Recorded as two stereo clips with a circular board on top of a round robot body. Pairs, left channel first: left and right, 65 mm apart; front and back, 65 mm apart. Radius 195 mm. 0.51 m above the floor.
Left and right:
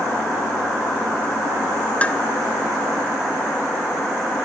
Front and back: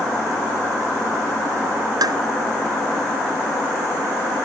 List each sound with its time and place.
2.0 s dishes clattering: 160° left